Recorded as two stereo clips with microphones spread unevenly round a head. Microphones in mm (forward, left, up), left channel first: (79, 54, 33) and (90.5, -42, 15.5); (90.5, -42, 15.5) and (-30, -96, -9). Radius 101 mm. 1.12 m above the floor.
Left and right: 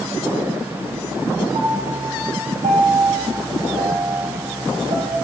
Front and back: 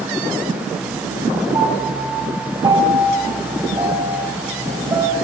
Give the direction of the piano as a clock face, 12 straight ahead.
3 o'clock.